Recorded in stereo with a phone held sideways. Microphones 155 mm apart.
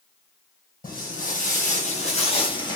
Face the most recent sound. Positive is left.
turn(degrees=25)  # may be behind; listen again after turning